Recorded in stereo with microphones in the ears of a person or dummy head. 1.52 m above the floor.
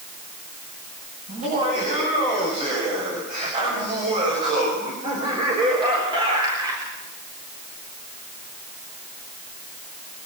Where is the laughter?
40° right (ahead or behind), 9 m; by 6.9 s 20° right (ahead or behind), 4 m.